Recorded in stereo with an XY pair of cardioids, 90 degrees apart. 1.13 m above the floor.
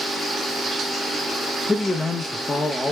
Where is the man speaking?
25° left, 0.6 m.